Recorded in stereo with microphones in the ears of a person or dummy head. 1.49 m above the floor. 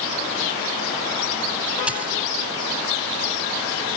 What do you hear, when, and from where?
1.9 s a dropped coin: 10° right (ahead or behind)